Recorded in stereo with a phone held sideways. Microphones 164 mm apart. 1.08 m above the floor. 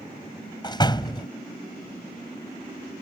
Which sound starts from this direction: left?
A door slam, at 0.6 s.